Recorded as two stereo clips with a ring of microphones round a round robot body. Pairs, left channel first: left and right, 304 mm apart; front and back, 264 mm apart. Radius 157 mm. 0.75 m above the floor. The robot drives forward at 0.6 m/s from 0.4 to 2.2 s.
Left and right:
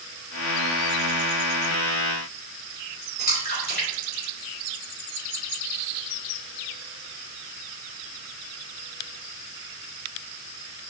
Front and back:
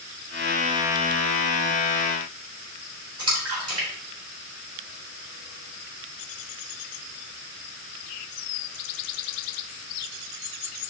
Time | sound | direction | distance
3.2 | a splash | 150° left | 3.5 m